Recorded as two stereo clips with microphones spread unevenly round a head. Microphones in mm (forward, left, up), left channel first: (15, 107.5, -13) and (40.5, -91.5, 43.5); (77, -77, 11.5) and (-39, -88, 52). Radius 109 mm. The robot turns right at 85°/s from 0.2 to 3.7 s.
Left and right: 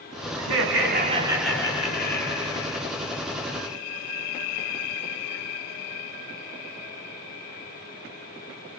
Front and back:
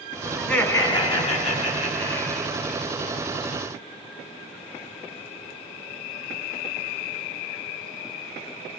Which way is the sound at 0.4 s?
80° right.